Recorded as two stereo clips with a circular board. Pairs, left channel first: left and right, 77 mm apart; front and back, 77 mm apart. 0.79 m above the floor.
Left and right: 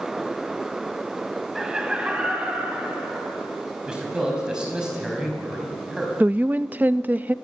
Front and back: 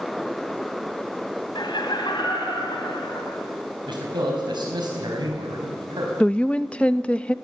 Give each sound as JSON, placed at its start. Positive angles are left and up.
{"t": 1.6, "sound": "laughter", "azimuth_deg": -5, "distance_m": 4.0}
{"t": 3.9, "sound": "a man speaking", "azimuth_deg": -170, "distance_m": 4.5}
{"t": 6.2, "sound": "a woman speaking", "azimuth_deg": -55, "distance_m": 0.5}